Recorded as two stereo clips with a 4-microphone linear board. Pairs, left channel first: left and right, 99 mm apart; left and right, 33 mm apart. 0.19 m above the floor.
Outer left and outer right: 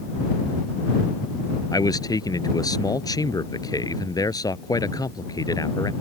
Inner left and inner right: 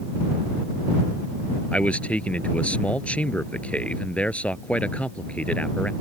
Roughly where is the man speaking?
Left.